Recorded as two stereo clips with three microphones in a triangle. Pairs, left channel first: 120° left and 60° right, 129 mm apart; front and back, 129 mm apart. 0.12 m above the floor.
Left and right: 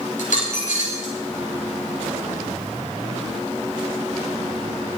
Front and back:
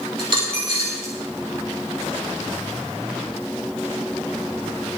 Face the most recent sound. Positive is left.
turn(degrees=135)